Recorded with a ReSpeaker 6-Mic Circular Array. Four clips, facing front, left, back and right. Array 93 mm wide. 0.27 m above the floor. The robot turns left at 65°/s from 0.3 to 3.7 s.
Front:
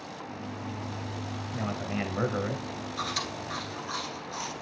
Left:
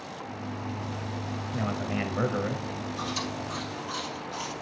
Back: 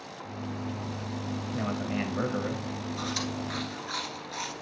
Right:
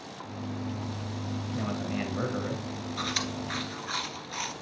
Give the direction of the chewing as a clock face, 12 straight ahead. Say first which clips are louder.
Right 1 dB, even; 2 o'clock.